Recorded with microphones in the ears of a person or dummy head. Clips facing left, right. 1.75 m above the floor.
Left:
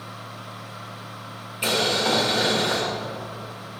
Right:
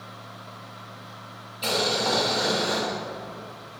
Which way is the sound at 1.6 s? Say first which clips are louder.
Left 2 dB; 40° left (ahead or behind).